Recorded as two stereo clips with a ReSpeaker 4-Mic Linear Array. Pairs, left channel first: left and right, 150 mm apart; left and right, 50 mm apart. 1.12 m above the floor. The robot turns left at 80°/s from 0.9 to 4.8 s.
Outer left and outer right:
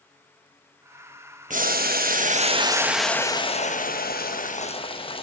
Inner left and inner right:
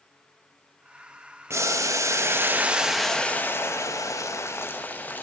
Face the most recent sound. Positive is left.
turn(degrees=35)